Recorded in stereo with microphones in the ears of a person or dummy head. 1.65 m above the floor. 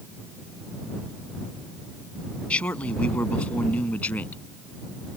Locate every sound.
2.5 s a man speaking: 10° left (ahead or behind)